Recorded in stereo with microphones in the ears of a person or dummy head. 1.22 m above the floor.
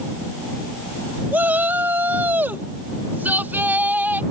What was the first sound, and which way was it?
A shout, 5° right (ahead or behind).